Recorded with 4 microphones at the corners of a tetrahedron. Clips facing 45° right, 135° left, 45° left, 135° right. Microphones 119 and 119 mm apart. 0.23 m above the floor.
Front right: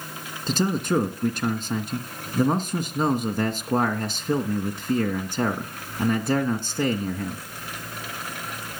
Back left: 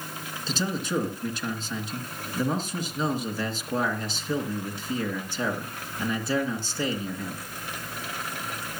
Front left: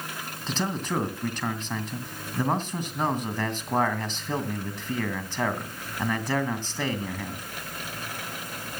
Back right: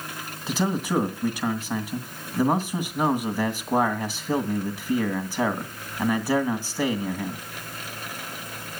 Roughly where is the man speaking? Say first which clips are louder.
Front right 6 dB, back right 4 dB; ahead right.